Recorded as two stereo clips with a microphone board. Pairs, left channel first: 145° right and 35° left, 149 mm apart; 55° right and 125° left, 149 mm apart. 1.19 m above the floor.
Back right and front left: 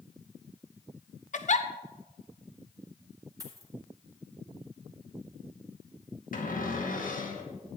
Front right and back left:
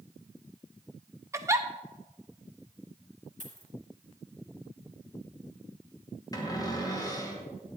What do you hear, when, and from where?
1.3 s a giggle: 170° right, 0.7 m
3.4 s a dropped coin: 100° left, 2 m
6.3 s a cupboard door: 120° right, 2 m